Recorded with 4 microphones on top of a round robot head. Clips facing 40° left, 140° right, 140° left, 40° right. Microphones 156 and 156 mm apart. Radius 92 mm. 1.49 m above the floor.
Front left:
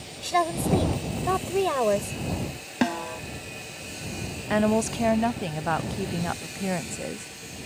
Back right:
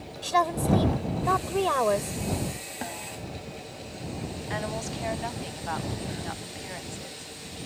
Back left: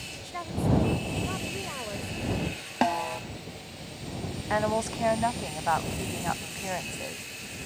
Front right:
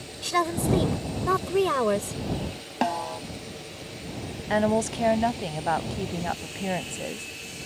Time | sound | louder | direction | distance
0.2 | a woman speaking | even, front right 6 dB | 35° right | ?
2.8 | a snare drum | front left 13 dB, even | 50° left | ?
4.5 | a woman speaking | front left 12 dB, front right 4 dB | 20° left | ?